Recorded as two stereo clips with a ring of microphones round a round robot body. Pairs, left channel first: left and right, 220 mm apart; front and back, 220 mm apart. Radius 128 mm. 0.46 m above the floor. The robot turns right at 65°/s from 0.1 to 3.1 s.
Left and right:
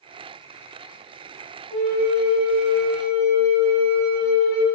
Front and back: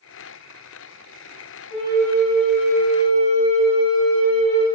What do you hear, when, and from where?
1.7 s a flute: 5° right, 1.5 m; by 4.7 s 85° left, 1.5 m